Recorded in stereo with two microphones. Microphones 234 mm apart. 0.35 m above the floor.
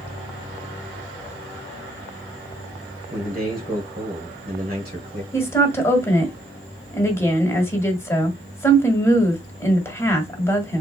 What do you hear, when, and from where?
3.1 s a man speaking: 40° right (ahead or behind), 1.6 m
5.3 s a woman speaking: 10° left (ahead or behind), 1.8 m